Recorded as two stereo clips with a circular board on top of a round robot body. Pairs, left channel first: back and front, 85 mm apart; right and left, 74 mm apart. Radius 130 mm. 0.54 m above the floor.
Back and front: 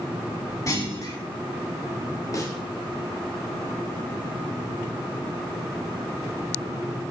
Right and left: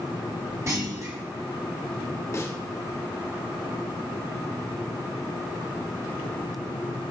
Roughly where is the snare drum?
Behind right.